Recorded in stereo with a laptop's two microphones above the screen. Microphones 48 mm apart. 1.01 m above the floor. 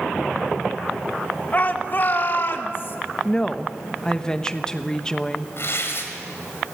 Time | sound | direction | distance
1.5 | a shout | 35° left (ahead or behind) | 1.4 m
3.2 | a woman speaking | 15° left (ahead or behind) | 1.0 m
5.6 | tearing paper | 55° left (ahead or behind) | 3 m